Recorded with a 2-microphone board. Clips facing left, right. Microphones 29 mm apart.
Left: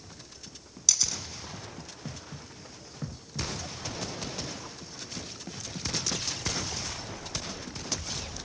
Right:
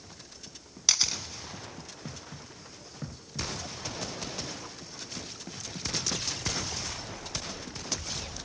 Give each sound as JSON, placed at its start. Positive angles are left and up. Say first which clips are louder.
{"t": 0.9, "sound": "a camera shutter", "louder": "right 2 dB", "side_deg": -35, "distance_m": 0.6}